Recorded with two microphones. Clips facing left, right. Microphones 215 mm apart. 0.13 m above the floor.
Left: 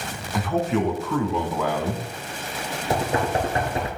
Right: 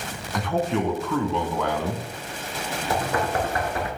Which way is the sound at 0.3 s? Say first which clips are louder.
Left 1 dB; 5° left (ahead or behind).